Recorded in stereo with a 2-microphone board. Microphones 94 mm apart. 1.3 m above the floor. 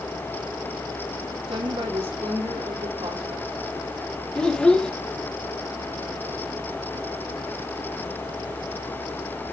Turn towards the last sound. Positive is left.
turn(degrees=10)  # may be behind; listen again after turning